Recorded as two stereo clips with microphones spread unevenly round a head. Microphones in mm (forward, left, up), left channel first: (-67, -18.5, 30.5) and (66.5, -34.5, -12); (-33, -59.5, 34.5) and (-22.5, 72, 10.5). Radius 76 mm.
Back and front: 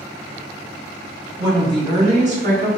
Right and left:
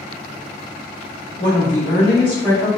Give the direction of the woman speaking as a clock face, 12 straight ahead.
3 o'clock.